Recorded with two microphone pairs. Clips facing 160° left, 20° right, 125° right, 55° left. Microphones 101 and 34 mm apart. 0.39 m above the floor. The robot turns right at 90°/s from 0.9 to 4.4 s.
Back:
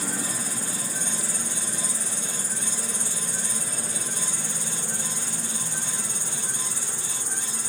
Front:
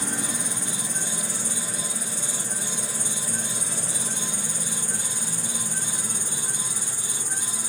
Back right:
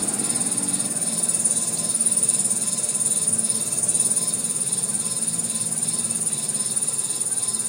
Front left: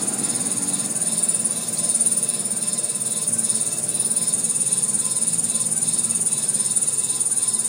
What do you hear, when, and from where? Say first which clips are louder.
0.0 s an insect: front 1 dB, even; 70° left, 7.5 m; by 7.7 s 25° left, 7.5 m